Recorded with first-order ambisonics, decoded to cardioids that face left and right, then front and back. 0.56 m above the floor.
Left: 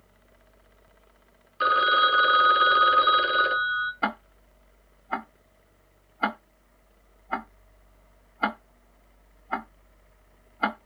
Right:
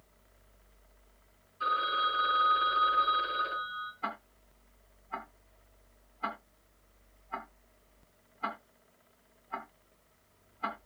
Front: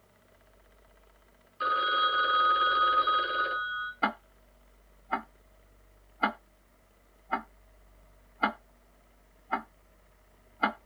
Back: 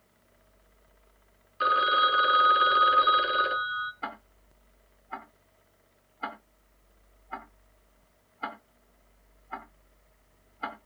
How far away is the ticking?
About 0.7 m.